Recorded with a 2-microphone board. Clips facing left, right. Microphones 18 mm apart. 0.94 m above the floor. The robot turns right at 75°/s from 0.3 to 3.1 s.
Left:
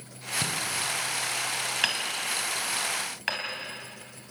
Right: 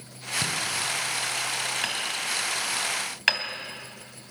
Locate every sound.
0.4 s knocking: 30° left (ahead or behind), 3.5 m; by 0.6 s 10° left (ahead or behind), 3.5 m
1.8 s hammering: 30° left (ahead or behind), 3 m; by 3.5 s 65° right (ahead or behind), 3 m